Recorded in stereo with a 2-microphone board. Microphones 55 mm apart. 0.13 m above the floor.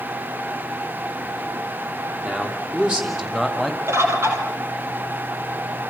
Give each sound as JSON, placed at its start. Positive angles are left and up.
{"t": 2.2, "sound": "a man speaking", "side_deg": -20, "distance_m": 6.0}
{"t": 3.9, "sound": "a bird", "side_deg": -55, "distance_m": 4.5}